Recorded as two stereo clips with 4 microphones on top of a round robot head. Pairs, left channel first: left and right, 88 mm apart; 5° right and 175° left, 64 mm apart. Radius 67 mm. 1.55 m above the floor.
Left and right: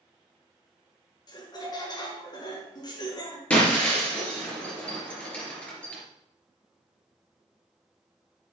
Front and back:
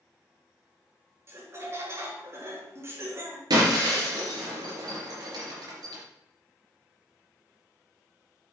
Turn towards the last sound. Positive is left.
turn(degrees=165)